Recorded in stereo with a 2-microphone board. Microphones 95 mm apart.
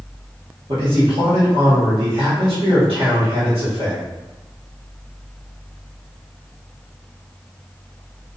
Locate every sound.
0.7 s a man speaking: 65° right (ahead or behind), 1.2 m